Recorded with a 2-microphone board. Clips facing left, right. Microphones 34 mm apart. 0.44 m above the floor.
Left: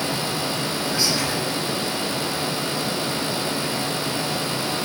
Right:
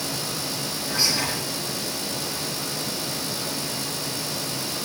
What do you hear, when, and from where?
0.9 s whispering: 5° right (ahead or behind), 6 m